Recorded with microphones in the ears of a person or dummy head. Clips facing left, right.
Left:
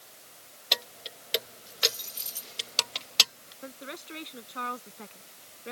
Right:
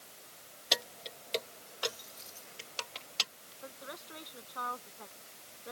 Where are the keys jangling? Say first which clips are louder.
Even; 10° right (ahead or behind); by 3.5 s 70° left (ahead or behind).